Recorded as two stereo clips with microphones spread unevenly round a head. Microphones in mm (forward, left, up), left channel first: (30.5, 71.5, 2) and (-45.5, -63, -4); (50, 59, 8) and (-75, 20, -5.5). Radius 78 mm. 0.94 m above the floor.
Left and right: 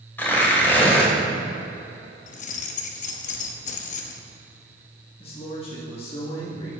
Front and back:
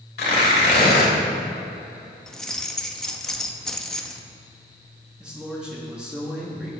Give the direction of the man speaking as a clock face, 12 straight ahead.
8 o'clock.